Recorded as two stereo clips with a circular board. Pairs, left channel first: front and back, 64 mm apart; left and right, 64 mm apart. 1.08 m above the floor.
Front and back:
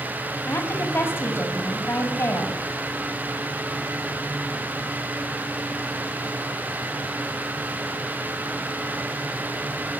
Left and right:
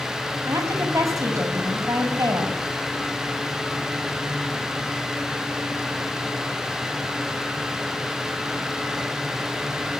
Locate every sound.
0.5 s a woman speaking: 55° right, 7 m